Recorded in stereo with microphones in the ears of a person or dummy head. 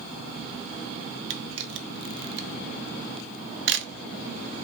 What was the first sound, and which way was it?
A camera shutter, 55° right (ahead or behind).